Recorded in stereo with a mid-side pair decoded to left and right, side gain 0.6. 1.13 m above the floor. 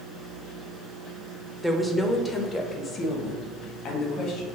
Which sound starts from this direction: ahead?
A woman speaking, at 1.6 s.